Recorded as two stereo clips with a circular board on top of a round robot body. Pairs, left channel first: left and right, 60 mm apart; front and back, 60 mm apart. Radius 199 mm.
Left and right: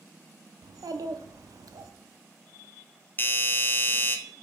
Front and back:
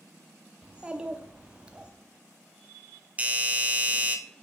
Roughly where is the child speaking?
Right.